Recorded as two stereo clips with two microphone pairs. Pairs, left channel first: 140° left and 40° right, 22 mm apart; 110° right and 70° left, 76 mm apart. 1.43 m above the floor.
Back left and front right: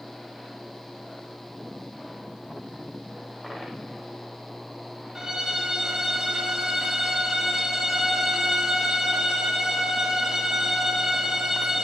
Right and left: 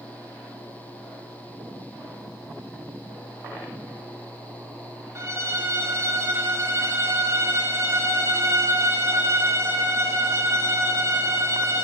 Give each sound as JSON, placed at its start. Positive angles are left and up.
{"t": 5.2, "sound": "a violin", "azimuth_deg": 25, "distance_m": 3.0}